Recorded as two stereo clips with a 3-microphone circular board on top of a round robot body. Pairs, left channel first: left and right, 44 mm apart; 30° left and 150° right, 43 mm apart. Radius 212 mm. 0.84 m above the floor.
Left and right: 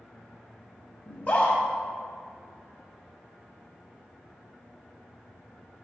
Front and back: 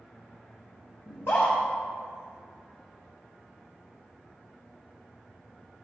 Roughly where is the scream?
Ahead left.